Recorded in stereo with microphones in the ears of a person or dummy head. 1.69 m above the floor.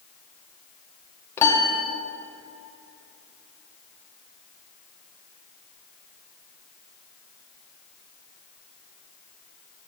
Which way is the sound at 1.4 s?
15° left (ahead or behind).